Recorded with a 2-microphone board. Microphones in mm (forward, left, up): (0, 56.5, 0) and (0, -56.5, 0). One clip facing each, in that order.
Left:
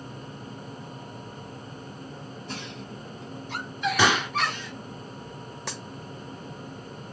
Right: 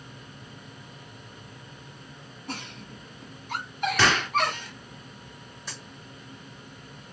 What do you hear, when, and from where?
2.5 s a giggle: 60° right (ahead or behind), 3 m
4.0 s a gunshot: 10° left (ahead or behind), 1.0 m
5.7 s a dropped coin: 85° left, 1.4 m